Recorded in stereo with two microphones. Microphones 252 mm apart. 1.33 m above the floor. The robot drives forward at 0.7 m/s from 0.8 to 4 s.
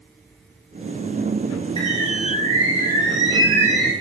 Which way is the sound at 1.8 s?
15° left (ahead or behind).